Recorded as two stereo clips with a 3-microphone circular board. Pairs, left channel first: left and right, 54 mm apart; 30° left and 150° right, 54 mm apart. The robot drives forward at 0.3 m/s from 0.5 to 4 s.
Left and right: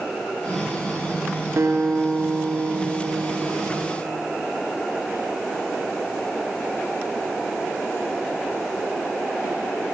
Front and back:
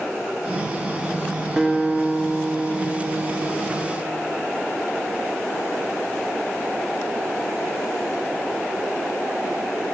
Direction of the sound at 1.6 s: 75° right.